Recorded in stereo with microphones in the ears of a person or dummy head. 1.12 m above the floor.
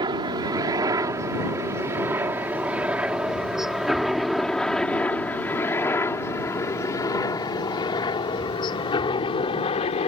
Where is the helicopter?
30° right (ahead or behind); by 10.1 s 30° left (ahead or behind).